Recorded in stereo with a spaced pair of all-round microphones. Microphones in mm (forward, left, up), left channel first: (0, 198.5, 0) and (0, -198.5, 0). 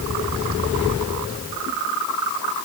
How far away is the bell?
I don't hear a bell.